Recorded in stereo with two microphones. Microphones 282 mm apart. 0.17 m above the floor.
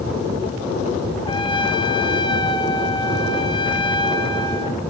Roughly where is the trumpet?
Centre.